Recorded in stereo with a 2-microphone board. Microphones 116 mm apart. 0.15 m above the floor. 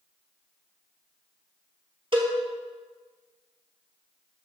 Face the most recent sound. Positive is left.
turn(degrees=-50)  # may be behind; listen again after turning